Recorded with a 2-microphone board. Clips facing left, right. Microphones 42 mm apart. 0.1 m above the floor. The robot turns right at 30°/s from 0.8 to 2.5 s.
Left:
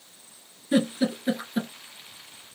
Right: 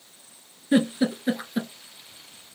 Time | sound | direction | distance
0.7 | a giggle | 15° right (ahead or behind) | 0.7 m